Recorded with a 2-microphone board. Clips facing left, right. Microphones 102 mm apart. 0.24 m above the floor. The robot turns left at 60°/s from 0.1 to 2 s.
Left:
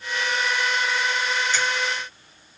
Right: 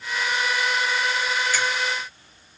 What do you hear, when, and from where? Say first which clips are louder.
1.5 s a finger snap: even; 20° left (ahead or behind), 2.5 m; by 1.6 s 15° left (ahead or behind), 2.5 m